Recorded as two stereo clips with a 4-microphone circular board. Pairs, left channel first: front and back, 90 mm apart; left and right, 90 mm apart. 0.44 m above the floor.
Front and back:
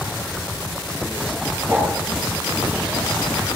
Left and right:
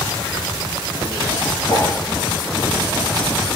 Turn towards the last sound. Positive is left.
turn(degrees=110)